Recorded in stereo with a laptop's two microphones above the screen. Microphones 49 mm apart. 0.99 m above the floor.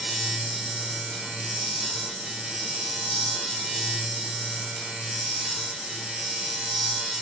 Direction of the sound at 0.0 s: Centre (ahead or behind).